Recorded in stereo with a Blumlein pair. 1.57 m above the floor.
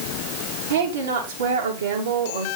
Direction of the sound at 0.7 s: 65° right.